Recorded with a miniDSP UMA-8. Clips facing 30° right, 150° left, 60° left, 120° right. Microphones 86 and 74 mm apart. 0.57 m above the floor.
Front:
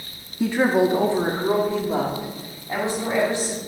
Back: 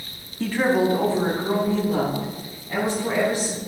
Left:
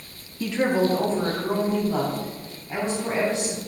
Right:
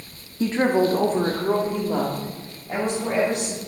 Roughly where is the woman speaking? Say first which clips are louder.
Front 2 dB, right 2 dB; right.